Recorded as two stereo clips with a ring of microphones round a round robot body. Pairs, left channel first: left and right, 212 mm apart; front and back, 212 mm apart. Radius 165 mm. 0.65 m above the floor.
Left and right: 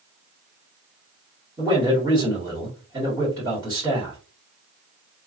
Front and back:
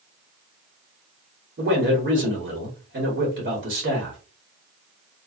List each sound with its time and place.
1.6 s a man speaking: 160° right, 1.5 m